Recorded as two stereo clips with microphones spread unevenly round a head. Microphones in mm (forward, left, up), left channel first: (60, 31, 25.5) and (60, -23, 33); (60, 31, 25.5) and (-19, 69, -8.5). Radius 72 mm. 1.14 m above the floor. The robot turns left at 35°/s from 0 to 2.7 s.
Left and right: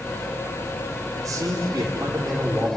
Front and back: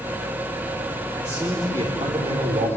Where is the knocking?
I don't hear knocking.